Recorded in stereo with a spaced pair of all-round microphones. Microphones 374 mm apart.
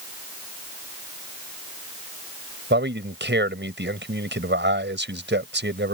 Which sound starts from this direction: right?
A man speaking, at 2.7 s.